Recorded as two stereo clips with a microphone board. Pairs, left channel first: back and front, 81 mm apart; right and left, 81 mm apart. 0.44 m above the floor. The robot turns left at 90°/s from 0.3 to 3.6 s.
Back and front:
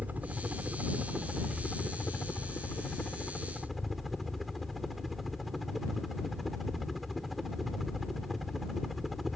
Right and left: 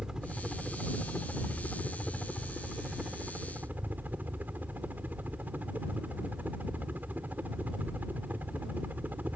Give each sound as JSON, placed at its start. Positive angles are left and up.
{"t": 0.0, "sound": "a helicopter", "azimuth_deg": 25}